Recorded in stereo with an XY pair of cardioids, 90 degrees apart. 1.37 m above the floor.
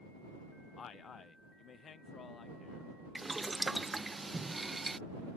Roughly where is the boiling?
Ahead.